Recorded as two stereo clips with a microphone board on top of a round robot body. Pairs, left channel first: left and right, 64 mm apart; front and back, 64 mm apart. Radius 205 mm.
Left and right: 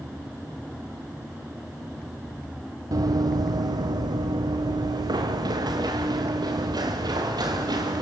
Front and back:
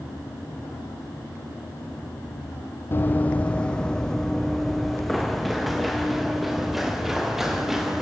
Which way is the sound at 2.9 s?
60° right.